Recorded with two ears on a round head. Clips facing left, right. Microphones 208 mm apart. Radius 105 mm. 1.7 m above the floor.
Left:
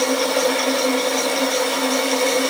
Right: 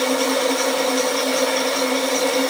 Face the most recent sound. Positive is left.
No sound to turn to.